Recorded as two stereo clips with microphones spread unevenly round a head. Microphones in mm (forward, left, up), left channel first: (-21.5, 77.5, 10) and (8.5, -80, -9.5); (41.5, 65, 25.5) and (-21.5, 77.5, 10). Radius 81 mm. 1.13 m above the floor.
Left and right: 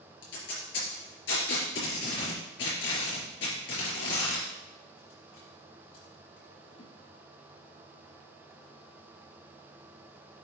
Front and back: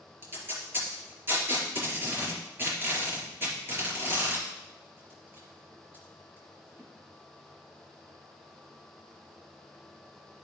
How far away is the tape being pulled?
About 5 m.